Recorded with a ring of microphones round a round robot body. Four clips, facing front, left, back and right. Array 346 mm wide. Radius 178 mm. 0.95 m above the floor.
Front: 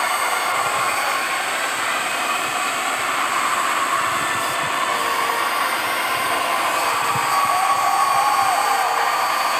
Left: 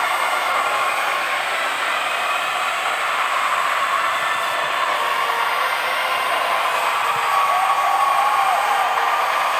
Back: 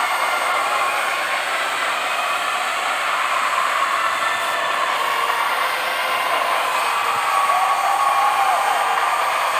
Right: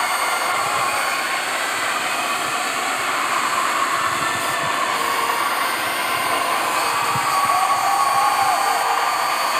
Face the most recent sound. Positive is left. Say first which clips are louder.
# left 1 dB, back 1 dB
turn(degrees=-55)